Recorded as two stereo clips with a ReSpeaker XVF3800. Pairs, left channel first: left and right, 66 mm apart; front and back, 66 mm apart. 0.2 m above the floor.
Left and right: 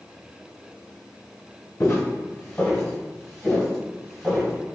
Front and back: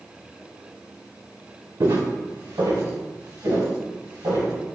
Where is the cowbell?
No cowbell in this recording.